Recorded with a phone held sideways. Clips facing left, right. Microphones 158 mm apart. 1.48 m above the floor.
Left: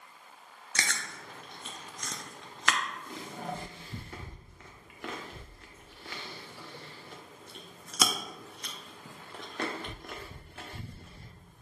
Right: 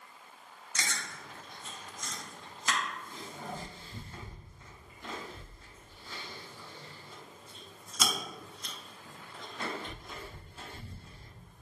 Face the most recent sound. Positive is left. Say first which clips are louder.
# left 2 dB
turn(degrees=75)  # may be behind; listen again after turning